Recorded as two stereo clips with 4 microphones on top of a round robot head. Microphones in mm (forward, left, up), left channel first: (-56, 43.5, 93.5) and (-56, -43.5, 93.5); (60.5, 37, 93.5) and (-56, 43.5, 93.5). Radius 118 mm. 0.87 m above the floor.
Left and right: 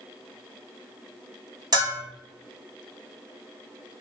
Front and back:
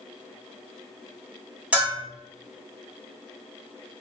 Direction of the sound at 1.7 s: 105° right.